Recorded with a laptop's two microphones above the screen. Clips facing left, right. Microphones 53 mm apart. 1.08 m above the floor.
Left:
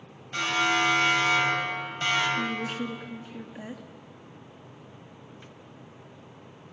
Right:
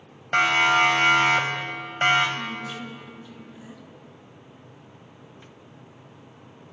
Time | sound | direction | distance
0.3 | a siren | 60° right (ahead or behind) | 4.5 m
2.4 | a woman speaking | 50° left (ahead or behind) | 2.5 m